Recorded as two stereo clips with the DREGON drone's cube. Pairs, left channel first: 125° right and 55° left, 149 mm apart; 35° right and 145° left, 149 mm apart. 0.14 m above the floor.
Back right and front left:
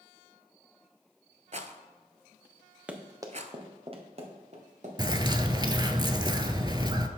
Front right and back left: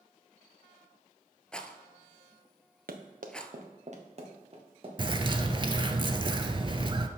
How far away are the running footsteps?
About 1.2 m.